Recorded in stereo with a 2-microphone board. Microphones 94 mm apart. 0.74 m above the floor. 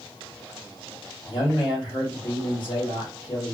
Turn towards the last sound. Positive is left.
turn(degrees=65)  # may be behind; listen again after turning